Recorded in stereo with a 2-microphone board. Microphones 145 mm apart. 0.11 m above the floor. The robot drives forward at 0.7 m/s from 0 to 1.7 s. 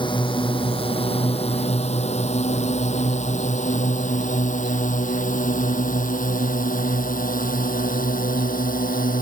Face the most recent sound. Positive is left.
turn(degrees=70)  # may be behind; listen again after turning